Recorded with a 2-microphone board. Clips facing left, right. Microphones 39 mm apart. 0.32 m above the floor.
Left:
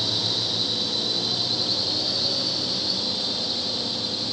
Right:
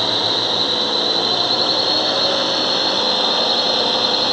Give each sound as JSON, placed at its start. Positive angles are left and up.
{"t": 0.0, "sound": "a drone", "side_deg": -50}